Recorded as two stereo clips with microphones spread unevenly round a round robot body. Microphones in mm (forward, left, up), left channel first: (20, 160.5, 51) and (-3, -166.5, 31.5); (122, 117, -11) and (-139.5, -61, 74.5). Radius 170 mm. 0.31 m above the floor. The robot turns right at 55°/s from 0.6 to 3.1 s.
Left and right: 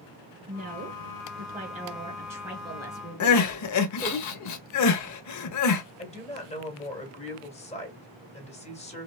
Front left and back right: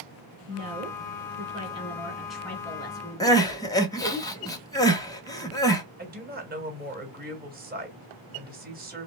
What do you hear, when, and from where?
0.5 s a woman speaking: 120° right, 1.5 m; by 4.2 s 15° left, 1.5 m
3.2 s crying: 95° left, 0.9 m
6.0 s a woman speaking: 145° left, 1.6 m